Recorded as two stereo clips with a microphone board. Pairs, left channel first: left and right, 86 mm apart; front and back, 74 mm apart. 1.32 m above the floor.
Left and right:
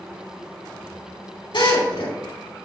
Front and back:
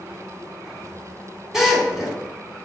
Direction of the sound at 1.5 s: 95° left.